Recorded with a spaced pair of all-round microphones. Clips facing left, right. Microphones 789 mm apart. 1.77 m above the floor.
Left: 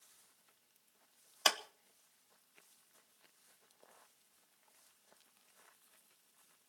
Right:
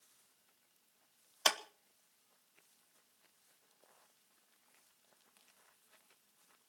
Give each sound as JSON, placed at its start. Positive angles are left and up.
{"t": 1.4, "sound": "a clap", "side_deg": 0, "distance_m": 0.9}